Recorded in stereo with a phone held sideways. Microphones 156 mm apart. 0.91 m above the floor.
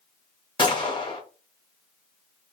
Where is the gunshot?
35° left (ahead or behind), 0.7 m.